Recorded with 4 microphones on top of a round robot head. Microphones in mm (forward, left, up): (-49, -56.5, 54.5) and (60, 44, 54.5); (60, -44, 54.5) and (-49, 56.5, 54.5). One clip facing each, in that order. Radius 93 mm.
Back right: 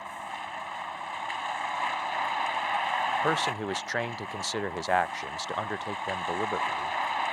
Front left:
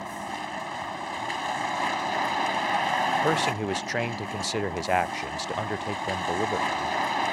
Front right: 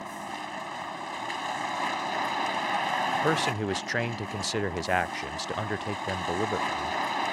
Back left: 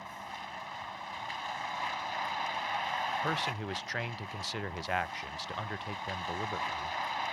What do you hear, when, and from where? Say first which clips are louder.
0.0 s a vehicle: front left 4 dB, front right 7 dB; 5° right
3.1 s a man speaking: front left 3 dB, front right 8 dB; 30° right